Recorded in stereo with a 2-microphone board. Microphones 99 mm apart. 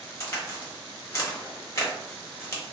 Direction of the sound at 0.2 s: 30° left (ahead or behind).